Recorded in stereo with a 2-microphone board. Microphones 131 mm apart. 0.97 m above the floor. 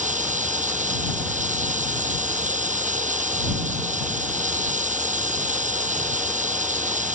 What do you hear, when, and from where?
0.0 s running water: 70° right (ahead or behind)